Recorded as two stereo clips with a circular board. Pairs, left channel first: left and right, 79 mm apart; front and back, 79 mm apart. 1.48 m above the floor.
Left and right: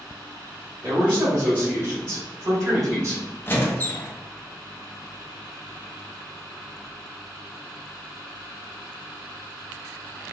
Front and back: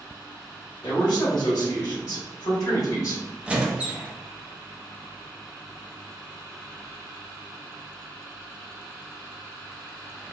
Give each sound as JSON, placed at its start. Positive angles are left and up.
{"t": 0.8, "sound": "a man speaking", "azimuth_deg": -30, "distance_m": 1.5}
{"t": 3.5, "sound": "a squeak", "azimuth_deg": 120, "distance_m": 0.6}